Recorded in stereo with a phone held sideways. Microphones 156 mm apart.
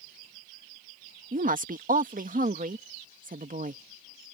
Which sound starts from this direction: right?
A woman speaking, at 1.3 s.